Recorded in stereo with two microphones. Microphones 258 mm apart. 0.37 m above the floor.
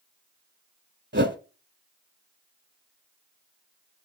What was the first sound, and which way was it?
A whoosh, 45° right (ahead or behind).